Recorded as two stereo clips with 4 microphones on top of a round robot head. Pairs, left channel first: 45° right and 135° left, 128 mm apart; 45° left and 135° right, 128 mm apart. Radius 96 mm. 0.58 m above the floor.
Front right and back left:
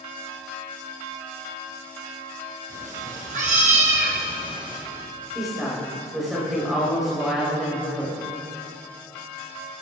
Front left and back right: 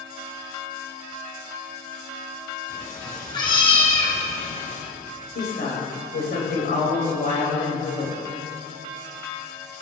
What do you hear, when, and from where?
2.7 s a cat meowing: 115° left, 2 m; by 4.8 s 75° left, 1.8 m
5.3 s a woman speaking: 45° left, 4 m